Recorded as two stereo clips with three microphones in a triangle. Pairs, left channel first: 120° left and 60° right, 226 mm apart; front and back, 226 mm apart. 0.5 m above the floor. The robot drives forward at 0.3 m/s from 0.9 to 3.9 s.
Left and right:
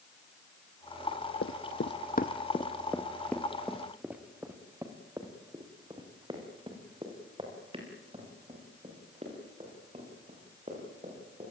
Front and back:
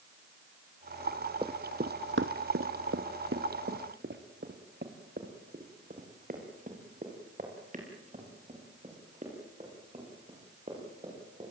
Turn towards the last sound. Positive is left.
turn(degrees=-120)